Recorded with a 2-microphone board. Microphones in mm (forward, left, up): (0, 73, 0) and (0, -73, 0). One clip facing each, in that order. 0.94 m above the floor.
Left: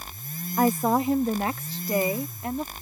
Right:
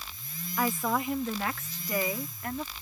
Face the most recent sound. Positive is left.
turn(degrees=25)  # may be behind; listen again after turning